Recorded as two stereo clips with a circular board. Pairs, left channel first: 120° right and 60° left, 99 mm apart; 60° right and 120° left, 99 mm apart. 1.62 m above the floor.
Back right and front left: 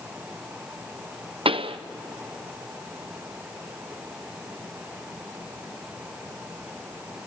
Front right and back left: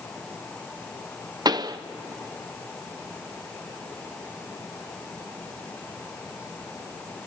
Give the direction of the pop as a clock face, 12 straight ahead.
9 o'clock.